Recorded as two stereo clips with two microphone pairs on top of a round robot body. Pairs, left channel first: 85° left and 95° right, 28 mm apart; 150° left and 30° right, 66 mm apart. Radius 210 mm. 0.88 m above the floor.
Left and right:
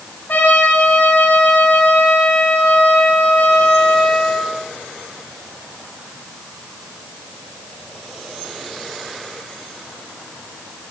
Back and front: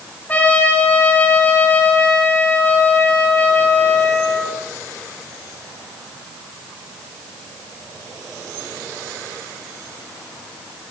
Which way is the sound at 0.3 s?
85° left.